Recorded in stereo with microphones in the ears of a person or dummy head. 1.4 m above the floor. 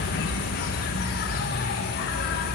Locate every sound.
0.0 s an insect: 50° left (ahead or behind), 0.7 m